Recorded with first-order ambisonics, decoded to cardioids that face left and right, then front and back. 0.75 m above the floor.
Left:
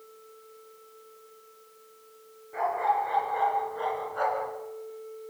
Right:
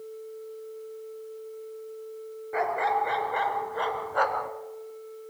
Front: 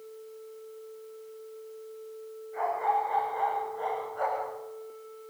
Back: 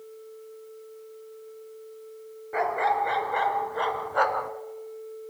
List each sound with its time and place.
2.5 s a dog barking: 145° right, 3 m; by 4.5 s 150° right, 2 m